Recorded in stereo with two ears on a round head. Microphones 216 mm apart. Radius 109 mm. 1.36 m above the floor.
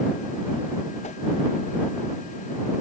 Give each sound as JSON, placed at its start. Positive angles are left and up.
{"t": 1.0, "sound": "a whoosh", "side_deg": 30}